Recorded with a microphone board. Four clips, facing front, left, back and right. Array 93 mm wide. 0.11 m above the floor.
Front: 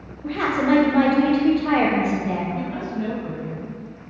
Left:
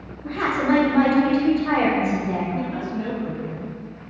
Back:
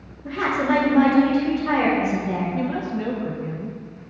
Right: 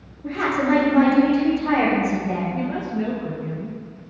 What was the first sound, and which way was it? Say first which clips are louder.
A woman speaking: right 1 dB, front 1 dB; 20° right.